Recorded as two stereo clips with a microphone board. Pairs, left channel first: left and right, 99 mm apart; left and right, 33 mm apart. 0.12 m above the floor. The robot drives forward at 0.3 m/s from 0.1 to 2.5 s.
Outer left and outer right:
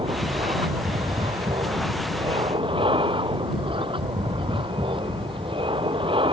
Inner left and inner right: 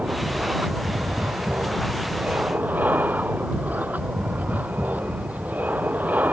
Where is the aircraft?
60° right (ahead or behind).